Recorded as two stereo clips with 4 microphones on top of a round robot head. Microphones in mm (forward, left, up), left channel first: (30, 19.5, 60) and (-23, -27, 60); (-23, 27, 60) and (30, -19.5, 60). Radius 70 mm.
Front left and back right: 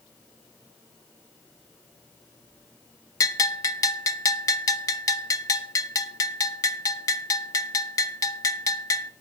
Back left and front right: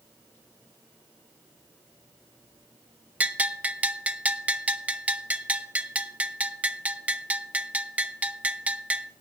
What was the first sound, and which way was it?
A bell, 25° left.